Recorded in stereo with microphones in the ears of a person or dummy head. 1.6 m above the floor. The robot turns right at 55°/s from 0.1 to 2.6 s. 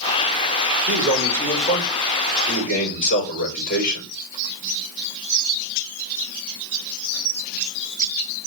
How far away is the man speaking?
About 5.5 m.